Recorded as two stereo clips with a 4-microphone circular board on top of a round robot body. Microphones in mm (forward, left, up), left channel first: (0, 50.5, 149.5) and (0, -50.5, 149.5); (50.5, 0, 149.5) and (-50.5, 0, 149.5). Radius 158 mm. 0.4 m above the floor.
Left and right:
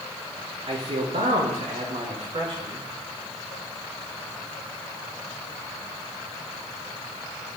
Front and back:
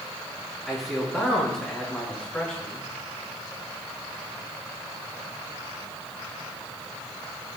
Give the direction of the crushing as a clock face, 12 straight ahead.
I don't hear crushing.